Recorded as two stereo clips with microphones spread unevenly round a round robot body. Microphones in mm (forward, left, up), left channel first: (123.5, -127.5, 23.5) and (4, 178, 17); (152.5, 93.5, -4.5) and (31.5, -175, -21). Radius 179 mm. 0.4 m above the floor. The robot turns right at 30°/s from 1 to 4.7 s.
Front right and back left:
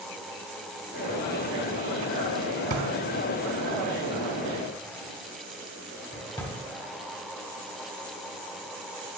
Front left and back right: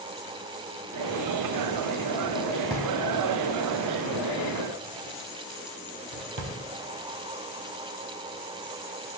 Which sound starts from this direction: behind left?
A drawer, at 2.7 s.